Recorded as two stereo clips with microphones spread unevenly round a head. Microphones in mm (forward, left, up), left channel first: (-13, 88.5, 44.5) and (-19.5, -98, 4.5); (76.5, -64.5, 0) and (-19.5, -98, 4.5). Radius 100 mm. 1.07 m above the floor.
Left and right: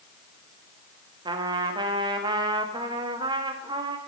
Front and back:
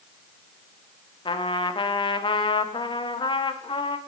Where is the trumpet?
20° right, 1.0 m.